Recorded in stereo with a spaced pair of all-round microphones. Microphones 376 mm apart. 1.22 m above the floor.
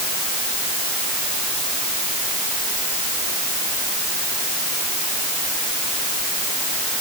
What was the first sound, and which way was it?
Only background noise.